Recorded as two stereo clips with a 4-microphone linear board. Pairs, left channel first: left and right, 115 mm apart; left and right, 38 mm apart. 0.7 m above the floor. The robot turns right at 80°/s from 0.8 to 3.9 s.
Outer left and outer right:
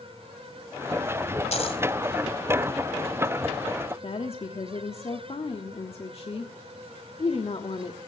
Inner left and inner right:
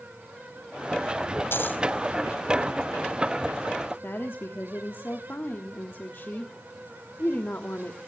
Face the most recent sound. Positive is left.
turn(degrees=60)  # may be behind; listen again after turning